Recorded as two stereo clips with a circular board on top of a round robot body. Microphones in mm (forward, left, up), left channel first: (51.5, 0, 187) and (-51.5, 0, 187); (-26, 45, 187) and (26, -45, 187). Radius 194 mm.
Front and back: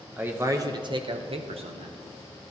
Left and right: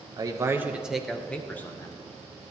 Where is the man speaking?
105° right, 0.7 m; by 2.0 s 175° right, 1.1 m.